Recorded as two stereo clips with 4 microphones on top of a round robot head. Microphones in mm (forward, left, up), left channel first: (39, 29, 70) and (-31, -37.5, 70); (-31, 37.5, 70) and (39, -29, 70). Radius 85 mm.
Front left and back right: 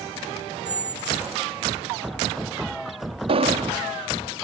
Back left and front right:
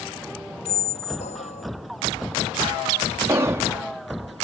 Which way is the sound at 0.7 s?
145° left.